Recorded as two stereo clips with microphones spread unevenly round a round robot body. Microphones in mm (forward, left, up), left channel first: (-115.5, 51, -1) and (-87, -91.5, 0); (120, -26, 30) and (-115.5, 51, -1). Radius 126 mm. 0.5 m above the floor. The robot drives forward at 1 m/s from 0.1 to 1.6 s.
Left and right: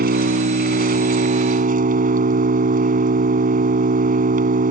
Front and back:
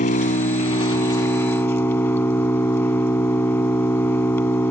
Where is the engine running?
80° right; by 4.7 s 100° right.